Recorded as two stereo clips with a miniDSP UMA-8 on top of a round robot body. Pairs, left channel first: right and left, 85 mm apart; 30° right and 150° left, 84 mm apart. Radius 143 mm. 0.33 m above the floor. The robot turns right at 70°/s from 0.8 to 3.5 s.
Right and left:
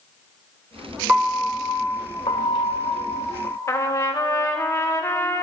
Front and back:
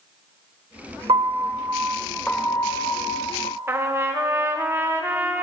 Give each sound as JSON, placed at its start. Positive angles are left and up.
{"t": 1.1, "sound": "a piano", "azimuth_deg": 165, "distance_m": 0.9}
{"t": 3.7, "sound": "a trumpet", "azimuth_deg": -145, "distance_m": 1.0}